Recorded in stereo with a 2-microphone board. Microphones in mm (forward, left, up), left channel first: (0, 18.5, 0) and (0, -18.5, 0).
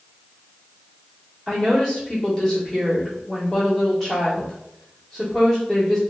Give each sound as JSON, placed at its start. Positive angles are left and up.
{"t": 1.5, "sound": "a woman speaking", "side_deg": 10, "distance_m": 1.3}